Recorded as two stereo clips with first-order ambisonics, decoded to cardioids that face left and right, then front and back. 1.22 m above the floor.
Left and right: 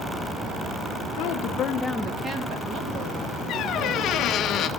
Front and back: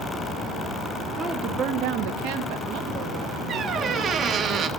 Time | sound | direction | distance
1.2 | a woman speaking | 105° left | 0.8 m
3.5 | a squeak | 130° left | 0.5 m